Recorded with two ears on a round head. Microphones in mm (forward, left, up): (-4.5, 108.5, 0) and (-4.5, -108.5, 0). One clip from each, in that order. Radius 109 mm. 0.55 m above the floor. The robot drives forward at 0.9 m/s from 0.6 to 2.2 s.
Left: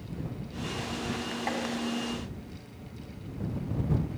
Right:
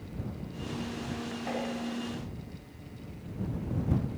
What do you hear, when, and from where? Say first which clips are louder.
1.5 s tapping: left 2 dB; 60° left (ahead or behind), 3 m; by 1.6 s 65° left (ahead or behind), 3 m